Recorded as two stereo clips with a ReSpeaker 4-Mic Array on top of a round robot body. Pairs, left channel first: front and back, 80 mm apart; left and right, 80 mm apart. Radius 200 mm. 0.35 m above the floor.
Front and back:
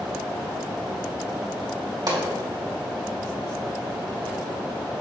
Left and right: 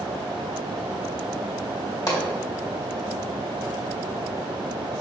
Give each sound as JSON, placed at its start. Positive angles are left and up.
{"t": 2.1, "sound": "a pop", "azimuth_deg": 135, "distance_m": 3.0}